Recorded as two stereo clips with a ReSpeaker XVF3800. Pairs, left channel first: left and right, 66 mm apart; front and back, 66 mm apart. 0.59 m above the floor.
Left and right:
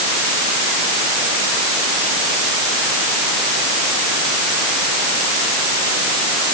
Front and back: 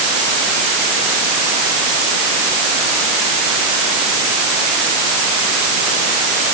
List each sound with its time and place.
Only background noise.